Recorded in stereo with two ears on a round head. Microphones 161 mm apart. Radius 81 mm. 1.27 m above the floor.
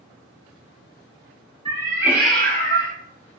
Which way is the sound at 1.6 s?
25° right (ahead or behind).